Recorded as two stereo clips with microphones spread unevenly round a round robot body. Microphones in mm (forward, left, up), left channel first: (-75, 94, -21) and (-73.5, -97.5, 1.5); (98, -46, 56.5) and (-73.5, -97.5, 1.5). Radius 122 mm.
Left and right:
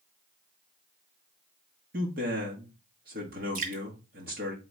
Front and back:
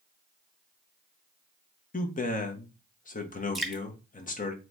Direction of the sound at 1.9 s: 35° right.